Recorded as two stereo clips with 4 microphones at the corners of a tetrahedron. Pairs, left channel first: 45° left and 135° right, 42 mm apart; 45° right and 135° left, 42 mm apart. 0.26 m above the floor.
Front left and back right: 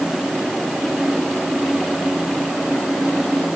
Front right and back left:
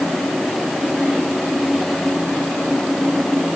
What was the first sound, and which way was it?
Only background noise.